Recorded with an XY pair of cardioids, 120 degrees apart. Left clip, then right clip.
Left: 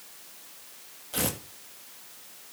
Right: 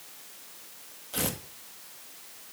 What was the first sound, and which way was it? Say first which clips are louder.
Tearing paper: left 1 dB; 10° left.